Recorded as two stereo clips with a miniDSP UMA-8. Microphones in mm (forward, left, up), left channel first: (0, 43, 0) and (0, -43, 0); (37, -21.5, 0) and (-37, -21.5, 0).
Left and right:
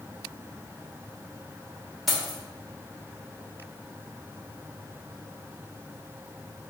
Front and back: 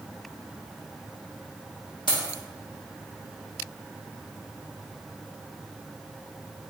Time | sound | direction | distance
2.1 | keys jangling | straight ahead | 1.3 m